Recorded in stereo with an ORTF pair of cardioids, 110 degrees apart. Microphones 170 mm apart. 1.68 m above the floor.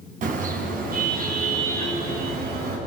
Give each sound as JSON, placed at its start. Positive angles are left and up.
{"t": 0.2, "sound": "a car horn", "azimuth_deg": -55, "distance_m": 6.5}